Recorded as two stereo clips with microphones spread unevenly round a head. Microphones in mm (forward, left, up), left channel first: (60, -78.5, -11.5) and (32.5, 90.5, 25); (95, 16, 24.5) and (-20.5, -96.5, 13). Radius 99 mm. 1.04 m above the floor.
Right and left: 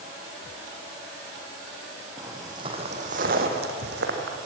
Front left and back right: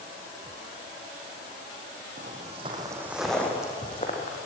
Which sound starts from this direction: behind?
Footsteps, at 2.2 s.